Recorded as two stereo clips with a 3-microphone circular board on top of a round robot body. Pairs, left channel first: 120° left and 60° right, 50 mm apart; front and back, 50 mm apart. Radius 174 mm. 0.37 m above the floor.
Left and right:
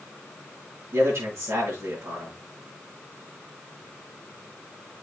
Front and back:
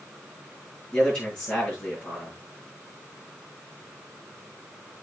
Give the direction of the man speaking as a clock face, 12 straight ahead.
3 o'clock.